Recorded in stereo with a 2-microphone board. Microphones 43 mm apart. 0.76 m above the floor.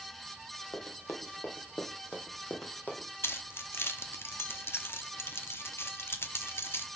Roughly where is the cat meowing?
I don't hear a cat meowing.